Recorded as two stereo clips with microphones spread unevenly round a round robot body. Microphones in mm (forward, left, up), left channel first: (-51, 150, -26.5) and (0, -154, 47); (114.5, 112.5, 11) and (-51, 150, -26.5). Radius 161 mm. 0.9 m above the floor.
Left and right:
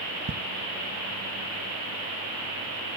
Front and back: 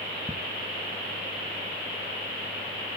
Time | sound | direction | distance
0.3 | ticking | 135° right | 0.7 m